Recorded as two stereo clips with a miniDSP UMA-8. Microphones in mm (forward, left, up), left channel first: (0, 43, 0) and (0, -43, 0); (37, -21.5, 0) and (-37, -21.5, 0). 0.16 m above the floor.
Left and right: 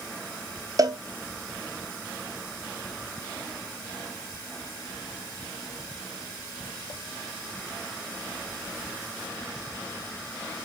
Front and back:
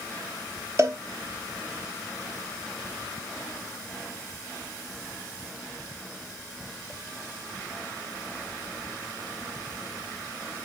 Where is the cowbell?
135° right, 1.0 m.